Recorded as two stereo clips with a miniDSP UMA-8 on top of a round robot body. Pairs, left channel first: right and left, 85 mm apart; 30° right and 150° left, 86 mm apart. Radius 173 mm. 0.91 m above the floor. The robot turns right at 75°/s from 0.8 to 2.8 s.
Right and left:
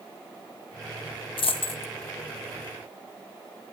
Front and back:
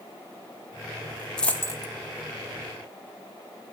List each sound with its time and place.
1.4 s a dropped coin: 115° right, 1.6 m; by 1.9 s 70° right, 1.6 m